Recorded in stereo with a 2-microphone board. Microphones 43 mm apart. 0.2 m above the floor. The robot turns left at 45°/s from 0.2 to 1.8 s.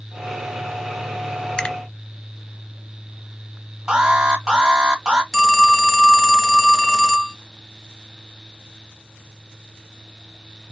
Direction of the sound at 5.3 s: Centre (ahead or behind).